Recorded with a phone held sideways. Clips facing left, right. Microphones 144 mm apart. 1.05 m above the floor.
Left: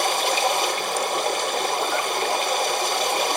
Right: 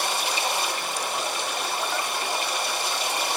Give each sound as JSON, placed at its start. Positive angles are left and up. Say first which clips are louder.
{"t": 0.0, "sound": "running water", "louder": "left 6 dB", "side_deg": 60, "distance_m": 0.9}